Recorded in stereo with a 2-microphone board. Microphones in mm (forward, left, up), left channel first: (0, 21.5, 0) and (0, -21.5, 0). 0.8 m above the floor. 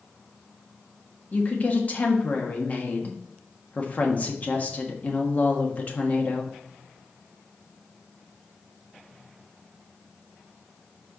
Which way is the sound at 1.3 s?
40° left (ahead or behind).